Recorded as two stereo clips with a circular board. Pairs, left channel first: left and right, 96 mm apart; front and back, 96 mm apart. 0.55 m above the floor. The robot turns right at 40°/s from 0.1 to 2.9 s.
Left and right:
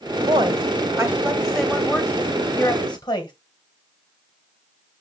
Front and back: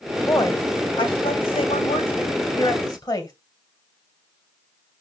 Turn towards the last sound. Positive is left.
turn(degrees=45)